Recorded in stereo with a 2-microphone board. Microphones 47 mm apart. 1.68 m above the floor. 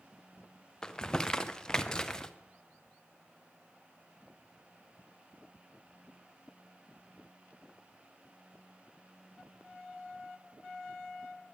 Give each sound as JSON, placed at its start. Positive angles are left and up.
{"t": 0.8, "sound": "crumpling", "side_deg": 15, "distance_m": 0.5}